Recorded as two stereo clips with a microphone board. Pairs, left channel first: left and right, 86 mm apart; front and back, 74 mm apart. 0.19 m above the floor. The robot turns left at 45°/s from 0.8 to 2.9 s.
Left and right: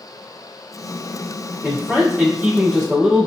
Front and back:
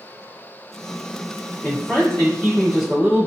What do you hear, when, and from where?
1.6 s a man speaking: 35° right, 1.5 m; by 3.3 s 95° right, 1.5 m